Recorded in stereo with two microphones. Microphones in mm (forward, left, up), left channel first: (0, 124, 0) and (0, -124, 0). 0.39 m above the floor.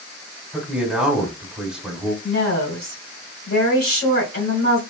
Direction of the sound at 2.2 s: 60° left (ahead or behind).